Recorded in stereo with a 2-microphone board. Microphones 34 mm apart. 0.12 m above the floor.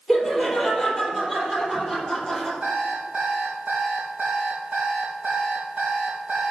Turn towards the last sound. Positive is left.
turn(degrees=-40)  # may be behind; listen again after turning